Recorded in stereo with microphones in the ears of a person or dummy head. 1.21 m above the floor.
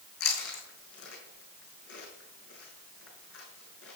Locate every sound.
0.2 s chewing: 65° left (ahead or behind), 4.5 m